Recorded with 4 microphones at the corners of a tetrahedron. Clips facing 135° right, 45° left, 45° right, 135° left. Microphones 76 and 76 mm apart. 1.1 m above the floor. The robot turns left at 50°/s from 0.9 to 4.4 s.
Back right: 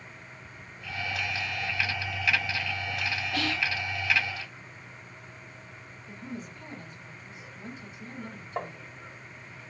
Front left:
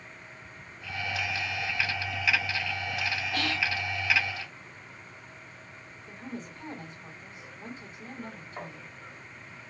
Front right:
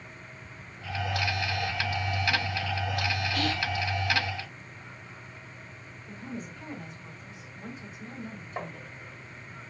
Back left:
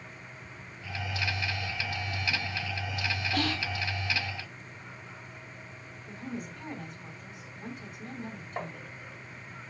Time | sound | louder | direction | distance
3.3 | whispering | back right 1 dB, front right 1 dB | 155° left | 2 m
6.1 | a woman speaking | even, back left 1 dB | 100° left | 3.5 m
8.6 | tapping | back right 7 dB, even | 140° right | 1.2 m